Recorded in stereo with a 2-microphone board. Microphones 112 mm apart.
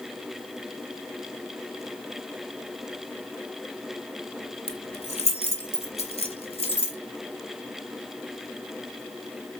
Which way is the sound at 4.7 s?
65° left (ahead or behind).